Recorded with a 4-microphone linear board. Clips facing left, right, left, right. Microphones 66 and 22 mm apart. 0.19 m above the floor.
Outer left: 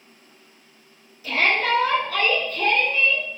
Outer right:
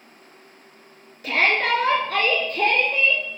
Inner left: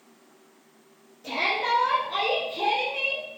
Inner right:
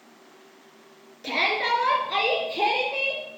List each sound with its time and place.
1.2 s a shout: 60° right (ahead or behind), 2.5 m; by 3.2 s 65° right (ahead or behind), 3.5 m